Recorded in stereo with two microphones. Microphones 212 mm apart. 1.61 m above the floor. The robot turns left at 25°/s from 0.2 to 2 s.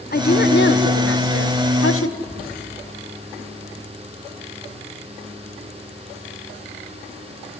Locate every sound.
0.1 s a woman speaking: 135° left, 1.4 m; by 2.2 s 90° left, 1.4 m
2.3 s whispering: 45° left (ahead or behind), 3 m